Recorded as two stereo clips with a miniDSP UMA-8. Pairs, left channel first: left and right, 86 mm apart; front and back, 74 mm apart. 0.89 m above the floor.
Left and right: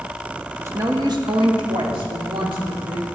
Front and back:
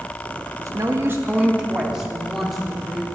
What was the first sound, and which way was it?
A woman speaking, 150° right.